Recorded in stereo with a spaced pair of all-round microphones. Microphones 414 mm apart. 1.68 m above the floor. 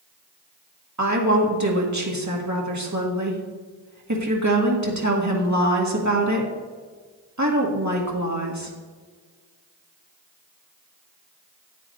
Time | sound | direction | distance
1.0 | a woman speaking | 45° right (ahead or behind) | 1.7 m